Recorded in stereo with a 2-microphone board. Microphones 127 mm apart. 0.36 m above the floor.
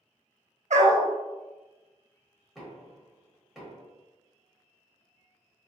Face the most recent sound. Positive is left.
turn(degrees=0)  # may be behind; listen again after turning